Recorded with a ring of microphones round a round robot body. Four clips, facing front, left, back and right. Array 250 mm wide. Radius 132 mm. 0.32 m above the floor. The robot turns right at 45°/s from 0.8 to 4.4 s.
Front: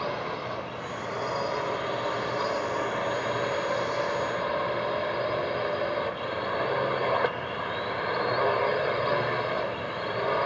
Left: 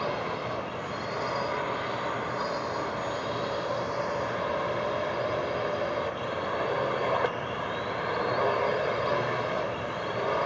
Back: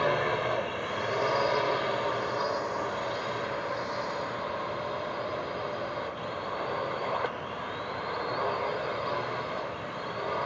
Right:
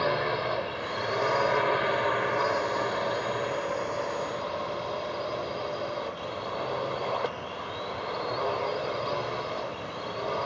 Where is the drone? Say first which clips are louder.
Right 4 dB, back 4 dB; 140° right; by 10.5 s 20° left.